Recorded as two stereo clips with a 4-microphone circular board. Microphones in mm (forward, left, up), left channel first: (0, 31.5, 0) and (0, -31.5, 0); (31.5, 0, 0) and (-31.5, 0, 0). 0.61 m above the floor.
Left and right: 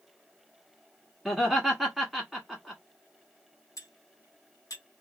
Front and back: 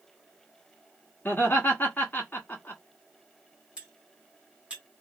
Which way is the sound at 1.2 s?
5° right.